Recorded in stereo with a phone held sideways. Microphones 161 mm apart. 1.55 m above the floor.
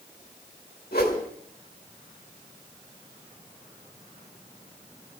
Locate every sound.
0.9 s a whoosh: 75° left (ahead or behind), 4.5 m